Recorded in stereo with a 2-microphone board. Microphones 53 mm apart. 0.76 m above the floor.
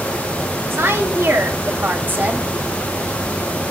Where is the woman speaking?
50° right (ahead or behind), 2.5 m; by 2.5 s 25° right (ahead or behind), 1.1 m.